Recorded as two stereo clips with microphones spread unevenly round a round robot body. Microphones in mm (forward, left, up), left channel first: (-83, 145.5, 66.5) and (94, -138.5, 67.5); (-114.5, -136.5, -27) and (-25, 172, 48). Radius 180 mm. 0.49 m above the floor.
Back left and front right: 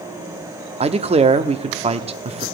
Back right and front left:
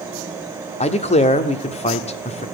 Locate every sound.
0.8 s a man speaking: 115° right, 0.9 m